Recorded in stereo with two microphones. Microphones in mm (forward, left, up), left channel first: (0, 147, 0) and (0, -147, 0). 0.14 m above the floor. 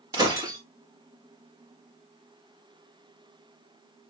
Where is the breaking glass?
10° right (ahead or behind), 4 m.